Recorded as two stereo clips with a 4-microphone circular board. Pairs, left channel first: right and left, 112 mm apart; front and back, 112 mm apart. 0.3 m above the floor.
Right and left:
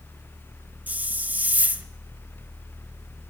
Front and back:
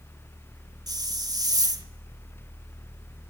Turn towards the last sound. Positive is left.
turn(degrees=155)